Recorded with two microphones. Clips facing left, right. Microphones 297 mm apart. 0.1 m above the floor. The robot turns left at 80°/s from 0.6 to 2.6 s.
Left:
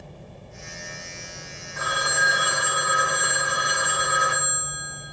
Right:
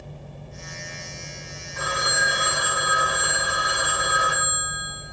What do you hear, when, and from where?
1.8 s a phone ringing: 135° right, 5.5 m; by 5.0 s 155° left, 5.5 m